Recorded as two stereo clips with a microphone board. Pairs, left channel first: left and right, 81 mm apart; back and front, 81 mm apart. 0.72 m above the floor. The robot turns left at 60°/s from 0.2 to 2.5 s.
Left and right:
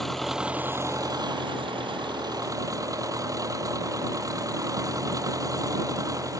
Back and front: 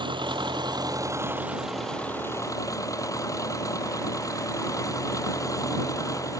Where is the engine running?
5° left; by 6.4 s 135° right.